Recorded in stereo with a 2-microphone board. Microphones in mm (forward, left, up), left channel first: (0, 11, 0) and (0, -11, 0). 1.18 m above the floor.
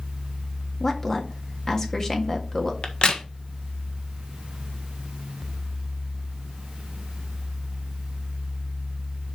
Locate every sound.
0.8 s a woman speaking: 30° left (ahead or behind), 1.8 m
2.8 s a crack: 55° left (ahead or behind), 1.4 m